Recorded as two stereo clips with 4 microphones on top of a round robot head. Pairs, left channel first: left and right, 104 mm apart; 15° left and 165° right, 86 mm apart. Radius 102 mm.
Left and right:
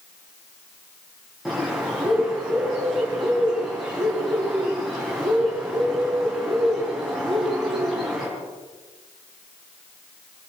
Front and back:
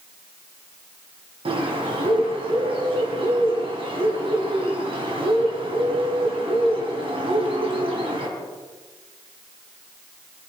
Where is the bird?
Straight behind, 4 m.